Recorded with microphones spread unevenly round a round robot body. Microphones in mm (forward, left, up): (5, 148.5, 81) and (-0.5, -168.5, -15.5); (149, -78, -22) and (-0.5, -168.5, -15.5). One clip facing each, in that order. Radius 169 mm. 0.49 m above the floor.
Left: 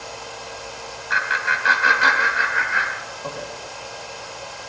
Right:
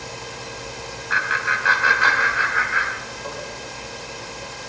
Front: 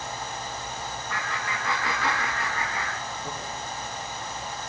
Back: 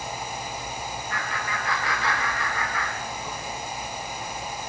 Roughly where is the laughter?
Left.